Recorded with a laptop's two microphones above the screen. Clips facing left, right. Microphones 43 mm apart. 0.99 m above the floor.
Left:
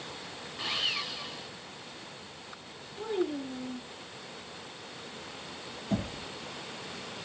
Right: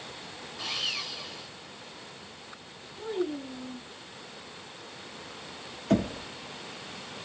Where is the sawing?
15° left (ahead or behind), 1.9 m.